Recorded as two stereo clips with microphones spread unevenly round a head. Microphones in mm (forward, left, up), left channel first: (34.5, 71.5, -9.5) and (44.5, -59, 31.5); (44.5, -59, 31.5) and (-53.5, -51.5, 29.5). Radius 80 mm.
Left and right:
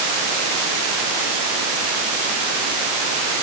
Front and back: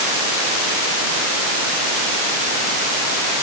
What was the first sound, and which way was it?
Only background noise.